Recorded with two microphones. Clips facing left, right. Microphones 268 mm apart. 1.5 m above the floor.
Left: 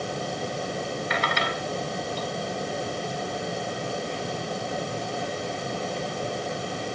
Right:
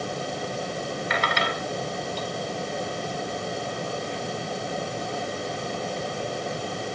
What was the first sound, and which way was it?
Only background noise.